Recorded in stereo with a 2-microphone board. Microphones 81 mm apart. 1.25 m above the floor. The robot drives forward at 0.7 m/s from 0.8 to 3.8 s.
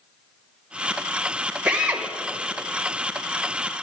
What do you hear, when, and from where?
1.6 s a drill: 15° right (ahead or behind), 1.5 m; by 2.1 s 20° right (ahead or behind), 1.2 m